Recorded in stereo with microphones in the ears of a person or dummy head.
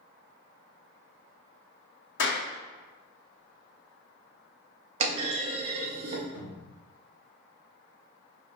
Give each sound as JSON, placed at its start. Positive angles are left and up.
{"t": 2.2, "sound": "a clap", "side_deg": 65, "distance_m": 1.8}
{"t": 5.0, "sound": "a clunk", "side_deg": -30, "distance_m": 0.6}
{"t": 6.3, "sound": "a cupboard door", "side_deg": -60, "distance_m": 1.3}